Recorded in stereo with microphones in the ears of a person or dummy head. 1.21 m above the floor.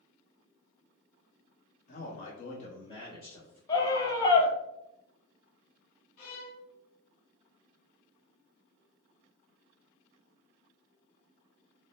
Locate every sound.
1.9 s a man speaking: 45° left (ahead or behind), 0.9 m; by 3.6 s 5° left (ahead or behind), 1.0 m
3.7 s a scream: 25° left (ahead or behind), 0.7 m
6.2 s a violin: 50° left (ahead or behind), 0.9 m